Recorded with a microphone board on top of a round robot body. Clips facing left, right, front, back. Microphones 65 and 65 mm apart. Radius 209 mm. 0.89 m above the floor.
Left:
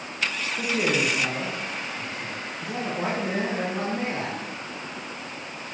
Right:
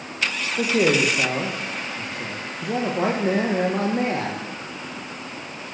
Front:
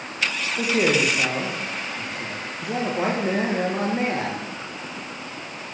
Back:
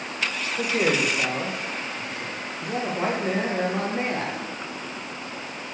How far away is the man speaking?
About 1.1 m.